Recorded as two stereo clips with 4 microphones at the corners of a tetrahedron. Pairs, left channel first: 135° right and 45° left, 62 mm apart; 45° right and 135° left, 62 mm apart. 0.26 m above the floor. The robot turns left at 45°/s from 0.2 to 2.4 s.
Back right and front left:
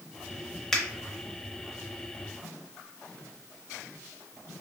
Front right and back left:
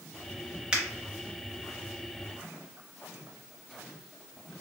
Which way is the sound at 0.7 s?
165° left.